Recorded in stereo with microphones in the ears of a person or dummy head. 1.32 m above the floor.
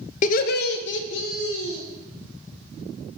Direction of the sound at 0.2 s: 45° left (ahead or behind).